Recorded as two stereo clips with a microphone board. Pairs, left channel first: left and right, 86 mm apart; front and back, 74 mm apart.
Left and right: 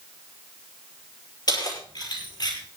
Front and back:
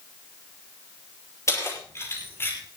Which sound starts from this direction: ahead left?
Keys jangling, at 1.5 s.